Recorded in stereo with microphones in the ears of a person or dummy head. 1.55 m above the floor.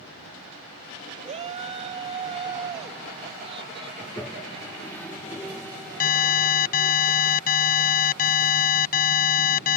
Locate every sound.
1.2 s a shout: 35° right (ahead or behind); by 3.9 s 25° right (ahead or behind)
4.0 s a toilet flushing: 10° left (ahead or behind)
6.0 s an alarm: 45° left (ahead or behind)